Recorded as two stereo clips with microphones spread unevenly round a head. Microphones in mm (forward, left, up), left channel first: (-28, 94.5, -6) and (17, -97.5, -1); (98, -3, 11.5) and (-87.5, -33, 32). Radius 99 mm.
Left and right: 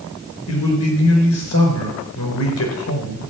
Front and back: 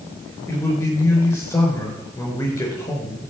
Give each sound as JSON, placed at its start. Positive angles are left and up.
{"t": 0.5, "sound": "a man speaking", "azimuth_deg": 90, "distance_m": 5.0}